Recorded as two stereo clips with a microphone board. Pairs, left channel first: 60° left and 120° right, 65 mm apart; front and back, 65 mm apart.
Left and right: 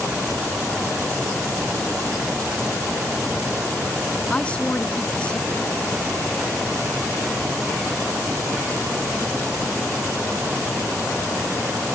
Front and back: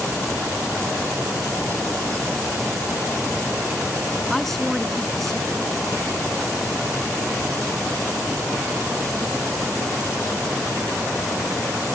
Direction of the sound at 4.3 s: 80° left.